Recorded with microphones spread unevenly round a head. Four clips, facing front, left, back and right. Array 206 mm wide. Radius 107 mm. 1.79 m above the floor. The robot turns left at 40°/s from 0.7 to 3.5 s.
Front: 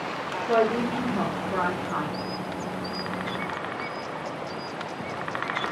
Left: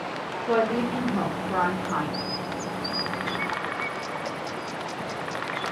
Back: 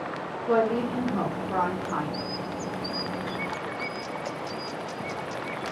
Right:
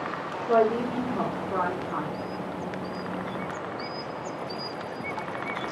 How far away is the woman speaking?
About 1.7 m.